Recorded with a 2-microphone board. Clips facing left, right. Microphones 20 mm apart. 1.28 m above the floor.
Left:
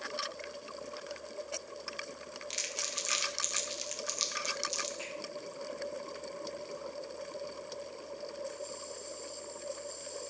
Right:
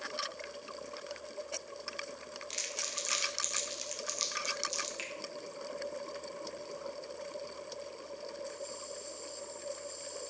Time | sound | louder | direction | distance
2.5 | crumpling | left 1 dB | 10° left (ahead or behind) | 1.0 m
5.0 | a finger snap | right 1 dB | 55° right (ahead or behind) | 2 m